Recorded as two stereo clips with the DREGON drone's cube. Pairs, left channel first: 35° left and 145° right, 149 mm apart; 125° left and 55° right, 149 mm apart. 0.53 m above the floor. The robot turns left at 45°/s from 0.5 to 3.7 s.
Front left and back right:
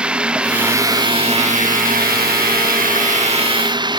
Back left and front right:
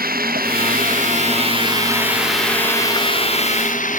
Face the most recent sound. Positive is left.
turn(degrees=155)